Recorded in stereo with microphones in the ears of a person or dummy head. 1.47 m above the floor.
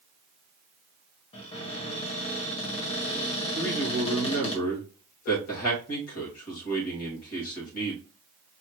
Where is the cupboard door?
35° left (ahead or behind), 1.6 m.